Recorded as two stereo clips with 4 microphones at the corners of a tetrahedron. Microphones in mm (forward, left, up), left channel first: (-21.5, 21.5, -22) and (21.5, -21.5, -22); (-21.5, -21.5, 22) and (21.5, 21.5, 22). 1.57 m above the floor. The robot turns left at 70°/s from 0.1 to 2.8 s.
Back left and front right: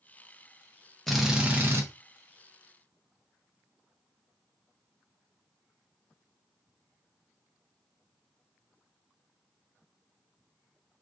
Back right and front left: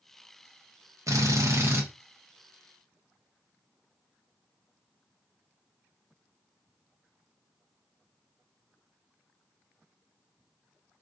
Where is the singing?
No singing in this recording.